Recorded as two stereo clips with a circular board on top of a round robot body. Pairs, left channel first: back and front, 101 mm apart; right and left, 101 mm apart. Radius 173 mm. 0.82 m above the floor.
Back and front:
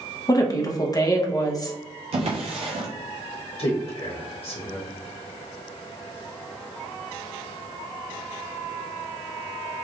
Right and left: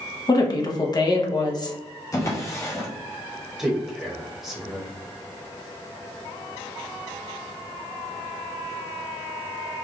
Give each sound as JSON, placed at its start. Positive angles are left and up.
{"t": 0.3, "sound": "a woman speaking", "azimuth_deg": -135, "distance_m": 1.0}
{"t": 2.1, "sound": "a drawer", "azimuth_deg": -25, "distance_m": 0.7}
{"t": 3.6, "sound": "a man speaking", "azimuth_deg": 175, "distance_m": 1.4}